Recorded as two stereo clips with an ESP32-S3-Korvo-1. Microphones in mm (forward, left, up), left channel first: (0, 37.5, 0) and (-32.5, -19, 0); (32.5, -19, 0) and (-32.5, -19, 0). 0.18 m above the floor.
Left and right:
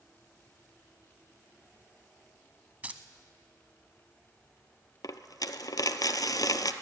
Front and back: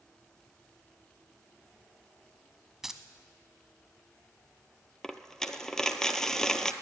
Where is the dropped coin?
80° left, 0.6 m.